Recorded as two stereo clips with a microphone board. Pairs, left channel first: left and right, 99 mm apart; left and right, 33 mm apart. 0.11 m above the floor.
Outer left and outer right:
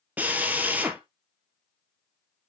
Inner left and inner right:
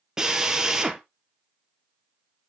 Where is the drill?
20° right (ahead or behind), 0.9 m.